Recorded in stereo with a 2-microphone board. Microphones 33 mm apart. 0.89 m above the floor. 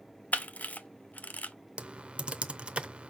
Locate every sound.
0.3 s a camera shutter: 55° left (ahead or behind), 0.7 m
1.8 s typing on a keyboard: 35° right (ahead or behind), 0.7 m